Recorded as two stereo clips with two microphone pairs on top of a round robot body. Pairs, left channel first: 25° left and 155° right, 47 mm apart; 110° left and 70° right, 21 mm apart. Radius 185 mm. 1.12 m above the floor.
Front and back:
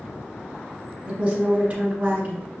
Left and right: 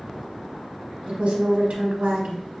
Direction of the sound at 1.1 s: 85° right.